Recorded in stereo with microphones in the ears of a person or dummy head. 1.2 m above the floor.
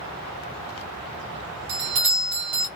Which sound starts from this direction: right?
A doorbell, at 1.7 s.